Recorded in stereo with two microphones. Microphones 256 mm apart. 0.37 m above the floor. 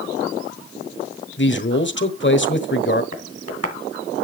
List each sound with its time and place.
1.4 s a man speaking: 45° left (ahead or behind), 1.3 m
3.1 s tapping: 65° right (ahead or behind), 2 m